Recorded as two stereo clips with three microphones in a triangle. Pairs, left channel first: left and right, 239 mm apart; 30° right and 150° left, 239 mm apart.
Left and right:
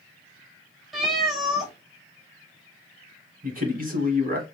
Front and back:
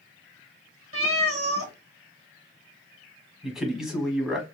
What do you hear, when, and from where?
0.9 s a cat meowing: straight behind, 0.8 m
3.4 s a man speaking: 125° right, 1.2 m